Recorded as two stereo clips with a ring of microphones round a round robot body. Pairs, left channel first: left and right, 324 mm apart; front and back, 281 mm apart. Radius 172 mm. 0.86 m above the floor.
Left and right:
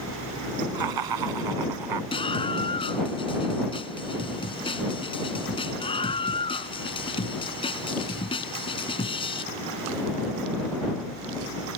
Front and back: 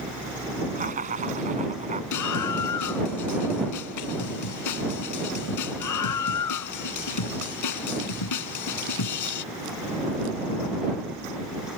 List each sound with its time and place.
0.8 s laughter: 110° right
2.1 s a scream: 15° left